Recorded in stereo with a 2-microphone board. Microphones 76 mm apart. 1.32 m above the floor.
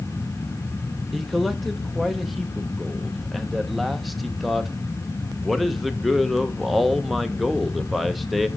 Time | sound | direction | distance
1.1 | a man speaking | centre (ahead or behind) | 0.9 m